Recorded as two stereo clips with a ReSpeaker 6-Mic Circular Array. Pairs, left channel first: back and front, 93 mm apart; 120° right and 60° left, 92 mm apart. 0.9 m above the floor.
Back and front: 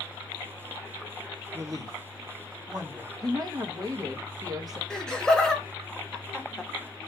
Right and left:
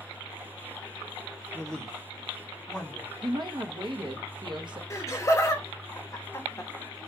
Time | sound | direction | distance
1.5 | a man speaking | 35° right | 1.0 m
3.2 | a woman speaking | 40° left | 0.8 m
4.9 | laughter | 105° right | 0.7 m